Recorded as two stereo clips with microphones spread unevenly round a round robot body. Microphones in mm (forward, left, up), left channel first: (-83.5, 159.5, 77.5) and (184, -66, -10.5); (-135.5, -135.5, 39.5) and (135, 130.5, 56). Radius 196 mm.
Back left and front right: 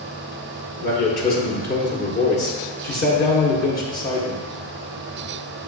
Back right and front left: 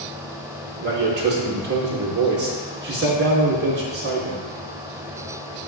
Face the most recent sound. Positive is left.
turn(degrees=70)